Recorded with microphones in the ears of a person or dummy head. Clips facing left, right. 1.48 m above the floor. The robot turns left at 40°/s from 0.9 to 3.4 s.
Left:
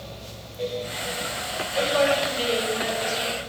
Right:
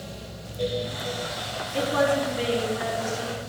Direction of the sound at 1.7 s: 95° right.